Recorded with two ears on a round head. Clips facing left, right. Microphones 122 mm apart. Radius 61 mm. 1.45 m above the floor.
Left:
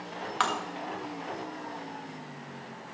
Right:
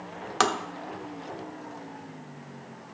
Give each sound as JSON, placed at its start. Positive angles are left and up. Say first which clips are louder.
{"t": 0.4, "sound": "tapping", "louder": "right 4 dB", "side_deg": -50, "distance_m": 0.8}